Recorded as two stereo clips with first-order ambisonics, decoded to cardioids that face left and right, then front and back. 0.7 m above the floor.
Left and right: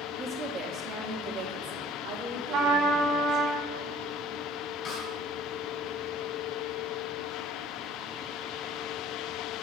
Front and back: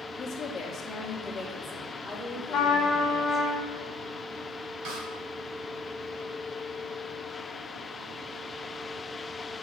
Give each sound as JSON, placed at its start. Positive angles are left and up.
{"t": 0.2, "sound": "a woman speaking", "azimuth_deg": -35, "distance_m": 0.9}
{"t": 2.5, "sound": "a trumpet", "azimuth_deg": -55, "distance_m": 1.2}
{"t": 4.8, "sound": "a snare drum", "azimuth_deg": 150, "distance_m": 2.5}